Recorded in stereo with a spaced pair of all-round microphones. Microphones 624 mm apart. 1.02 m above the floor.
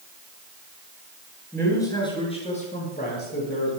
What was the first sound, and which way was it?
A man speaking, 5° left (ahead or behind).